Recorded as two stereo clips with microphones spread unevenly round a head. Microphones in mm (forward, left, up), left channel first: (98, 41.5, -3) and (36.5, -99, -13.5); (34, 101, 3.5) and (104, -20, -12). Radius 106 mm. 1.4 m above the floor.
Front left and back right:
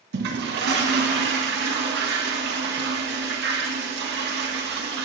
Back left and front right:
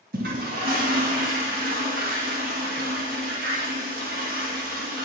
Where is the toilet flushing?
115° right, 1.6 m.